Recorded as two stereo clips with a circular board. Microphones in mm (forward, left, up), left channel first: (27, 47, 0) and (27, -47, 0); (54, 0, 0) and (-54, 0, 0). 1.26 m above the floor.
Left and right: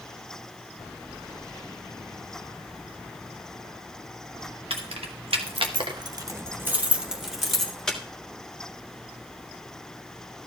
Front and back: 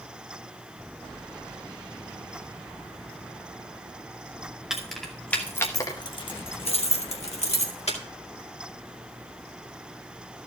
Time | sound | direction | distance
4.7 | keys jangling | 95° right | 1.4 m